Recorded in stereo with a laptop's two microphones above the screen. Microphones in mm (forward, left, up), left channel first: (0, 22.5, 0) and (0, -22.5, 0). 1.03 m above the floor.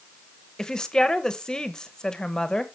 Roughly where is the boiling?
I don't hear boiling.